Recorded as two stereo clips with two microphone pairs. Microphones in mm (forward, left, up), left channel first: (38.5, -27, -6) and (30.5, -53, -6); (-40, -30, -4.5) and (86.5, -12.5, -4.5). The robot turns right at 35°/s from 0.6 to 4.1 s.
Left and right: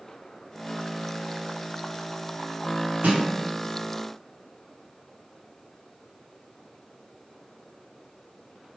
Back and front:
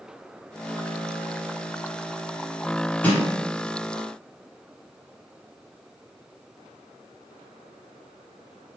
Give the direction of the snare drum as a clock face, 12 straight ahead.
3 o'clock.